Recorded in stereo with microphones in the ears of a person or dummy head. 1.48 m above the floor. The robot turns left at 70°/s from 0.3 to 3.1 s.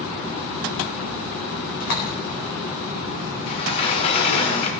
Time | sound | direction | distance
1.8 | a door slam | 40° left (ahead or behind) | 4.5 m
3.5 | a sliding door | 40° left (ahead or behind) | 2.5 m